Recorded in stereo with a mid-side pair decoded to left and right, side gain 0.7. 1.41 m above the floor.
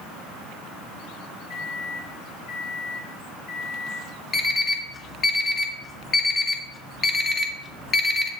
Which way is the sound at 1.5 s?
65° left.